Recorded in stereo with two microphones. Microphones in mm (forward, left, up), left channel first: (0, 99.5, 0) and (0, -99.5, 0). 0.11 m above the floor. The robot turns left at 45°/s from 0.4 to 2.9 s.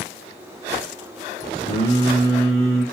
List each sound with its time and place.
1.6 s singing: 115° left, 1.6 m; by 2.8 s 65° left, 1.6 m